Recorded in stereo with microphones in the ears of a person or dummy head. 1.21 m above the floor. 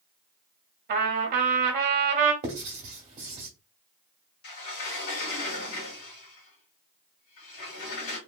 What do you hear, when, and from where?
0.9 s a trumpet: 45° right (ahead or behind), 1.2 m
2.4 s writing: 35° right (ahead or behind), 1.4 m
4.4 s a sliding door: 75° left (ahead or behind), 1.9 m